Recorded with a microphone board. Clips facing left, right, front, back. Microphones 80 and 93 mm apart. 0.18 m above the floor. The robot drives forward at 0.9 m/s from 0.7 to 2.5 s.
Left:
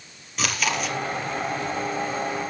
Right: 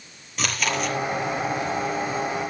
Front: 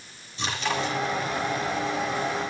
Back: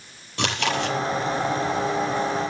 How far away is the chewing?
About 5 m.